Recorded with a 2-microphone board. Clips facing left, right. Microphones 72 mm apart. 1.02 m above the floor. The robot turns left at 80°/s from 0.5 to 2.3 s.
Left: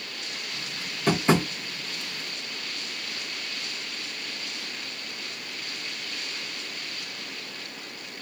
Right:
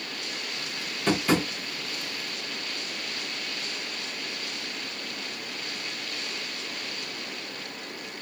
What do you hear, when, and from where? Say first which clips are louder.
1.1 s tapping: left 2 dB; 5° left (ahead or behind), 0.7 m; by 1.5 s 40° left (ahead or behind), 0.7 m